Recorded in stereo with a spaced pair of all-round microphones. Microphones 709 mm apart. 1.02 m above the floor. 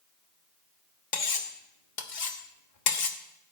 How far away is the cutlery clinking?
About 1.1 m.